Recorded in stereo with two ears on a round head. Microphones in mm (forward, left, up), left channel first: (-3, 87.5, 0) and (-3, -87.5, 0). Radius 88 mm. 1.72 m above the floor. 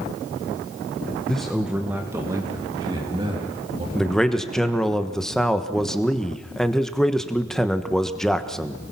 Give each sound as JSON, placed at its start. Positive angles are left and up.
{"t": 1.3, "sound": "a man speaking", "side_deg": 5, "distance_m": 1.4}
{"t": 4.0, "sound": "a man speaking", "side_deg": 5, "distance_m": 1.3}